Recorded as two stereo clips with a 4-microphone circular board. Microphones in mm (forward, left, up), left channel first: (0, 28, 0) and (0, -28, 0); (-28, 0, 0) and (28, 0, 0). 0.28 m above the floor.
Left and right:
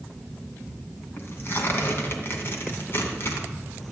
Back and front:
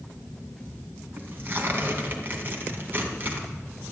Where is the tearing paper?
50° left, 2.5 m.